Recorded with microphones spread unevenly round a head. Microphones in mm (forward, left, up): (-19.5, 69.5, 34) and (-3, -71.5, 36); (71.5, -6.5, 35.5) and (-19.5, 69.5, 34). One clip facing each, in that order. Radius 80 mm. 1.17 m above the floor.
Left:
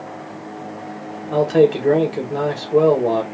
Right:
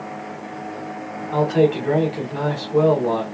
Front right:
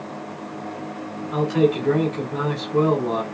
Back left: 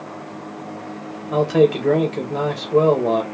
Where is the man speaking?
140° left, 1.8 m.